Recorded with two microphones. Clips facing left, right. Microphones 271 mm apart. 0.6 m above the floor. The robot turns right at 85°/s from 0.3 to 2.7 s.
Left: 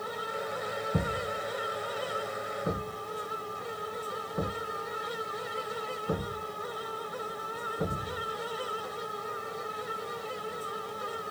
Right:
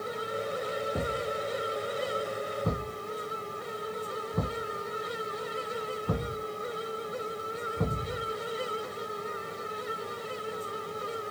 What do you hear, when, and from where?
0.9 s a thud: 85° left, 1.7 m; by 8.3 s 60° right (ahead or behind), 1.7 m